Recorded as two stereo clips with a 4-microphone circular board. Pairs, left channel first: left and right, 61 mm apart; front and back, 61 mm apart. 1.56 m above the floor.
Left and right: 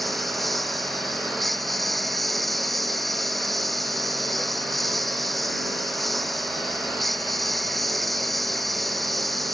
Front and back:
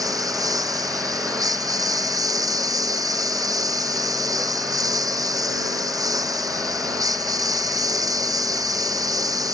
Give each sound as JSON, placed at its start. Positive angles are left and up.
{"t": 0.0, "sound": "a lawn mower", "azimuth_deg": 180}